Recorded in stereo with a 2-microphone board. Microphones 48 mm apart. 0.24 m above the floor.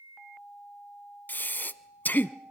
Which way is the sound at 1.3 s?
45° left (ahead or behind).